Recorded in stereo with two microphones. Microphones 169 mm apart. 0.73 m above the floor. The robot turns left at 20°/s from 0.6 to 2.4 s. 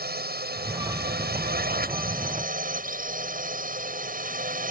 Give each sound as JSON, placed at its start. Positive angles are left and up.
{"t": 0.0, "sound": "a drone", "azimuth_deg": -85}